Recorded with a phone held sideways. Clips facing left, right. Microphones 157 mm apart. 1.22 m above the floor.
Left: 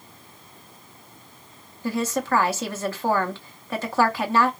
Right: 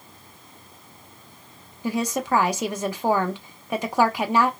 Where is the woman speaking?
15° right (ahead or behind), 0.5 m.